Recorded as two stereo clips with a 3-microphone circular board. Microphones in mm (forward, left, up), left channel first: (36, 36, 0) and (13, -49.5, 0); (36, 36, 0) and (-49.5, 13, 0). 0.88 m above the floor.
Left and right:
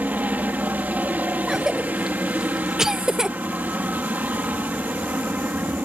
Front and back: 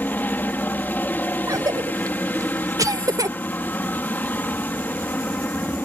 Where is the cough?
175° left.